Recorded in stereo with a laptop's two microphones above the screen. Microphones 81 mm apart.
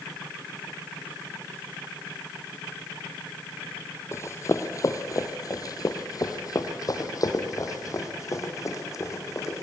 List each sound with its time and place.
4.1 s running footsteps: 35° left (ahead or behind), 1.6 m; by 9.6 s 40° left (ahead or behind), 3 m